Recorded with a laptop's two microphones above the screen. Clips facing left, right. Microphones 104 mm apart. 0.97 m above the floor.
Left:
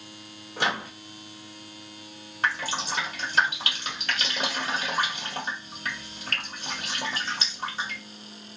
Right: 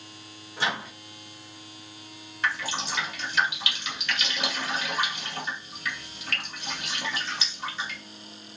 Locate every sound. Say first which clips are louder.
0.6 s a microwave: left 2 dB; 65° left (ahead or behind), 0.8 m
2.4 s dripping: left 2 dB; 40° left (ahead or behind), 1.5 m